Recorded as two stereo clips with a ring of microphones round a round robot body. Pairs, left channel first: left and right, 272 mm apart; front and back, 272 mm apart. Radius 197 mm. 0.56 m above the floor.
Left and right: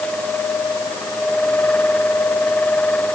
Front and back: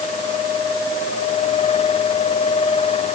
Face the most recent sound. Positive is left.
No sound to turn to.